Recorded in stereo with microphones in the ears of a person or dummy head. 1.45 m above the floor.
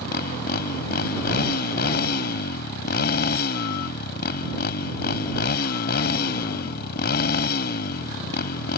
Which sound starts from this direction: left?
A motorcycle, at 0.0 s.